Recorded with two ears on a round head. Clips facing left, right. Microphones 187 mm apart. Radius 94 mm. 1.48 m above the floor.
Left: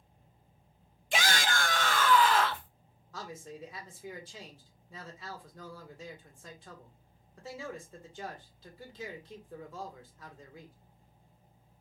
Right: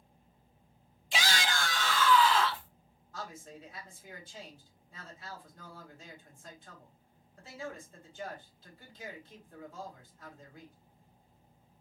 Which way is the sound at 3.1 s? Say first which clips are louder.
Left 2 dB; 60° left (ahead or behind).